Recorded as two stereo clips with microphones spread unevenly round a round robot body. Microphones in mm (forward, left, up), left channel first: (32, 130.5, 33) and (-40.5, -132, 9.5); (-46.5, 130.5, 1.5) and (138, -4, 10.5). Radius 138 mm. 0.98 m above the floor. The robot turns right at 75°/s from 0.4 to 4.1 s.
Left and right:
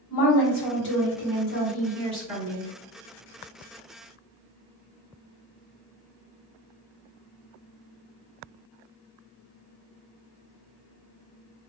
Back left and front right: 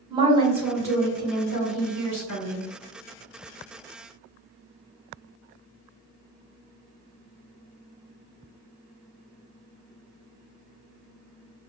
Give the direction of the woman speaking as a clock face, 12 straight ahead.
11 o'clock.